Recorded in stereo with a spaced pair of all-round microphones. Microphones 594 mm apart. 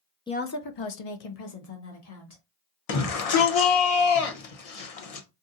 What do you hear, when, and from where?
0.3 s a woman speaking: 10° left (ahead or behind), 0.5 m; by 2.4 s 85° left, 1.5 m
2.9 s a shout: 70° left (ahead or behind), 0.9 m